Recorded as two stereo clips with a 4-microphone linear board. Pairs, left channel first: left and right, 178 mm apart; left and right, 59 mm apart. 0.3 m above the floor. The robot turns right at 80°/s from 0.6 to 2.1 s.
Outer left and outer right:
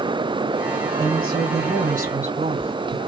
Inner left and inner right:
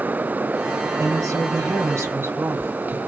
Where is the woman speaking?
135° right, 2.5 m; by 3.0 s 45° right, 2.5 m.